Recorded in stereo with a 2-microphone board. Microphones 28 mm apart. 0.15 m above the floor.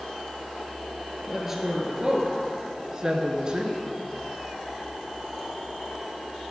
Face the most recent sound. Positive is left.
turn(degrees=-35)  # may be behind; listen again after turning